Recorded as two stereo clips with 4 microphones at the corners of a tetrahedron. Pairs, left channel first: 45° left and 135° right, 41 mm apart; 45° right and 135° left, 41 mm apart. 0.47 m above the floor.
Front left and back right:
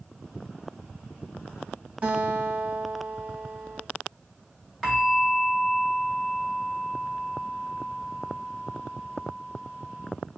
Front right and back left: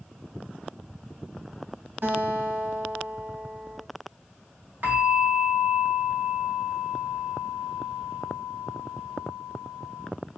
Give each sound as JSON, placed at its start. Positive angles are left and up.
{"t": 2.0, "sound": "a guitar", "azimuth_deg": 165, "distance_m": 2.0}
{"t": 4.8, "sound": "a bell", "azimuth_deg": 130, "distance_m": 1.9}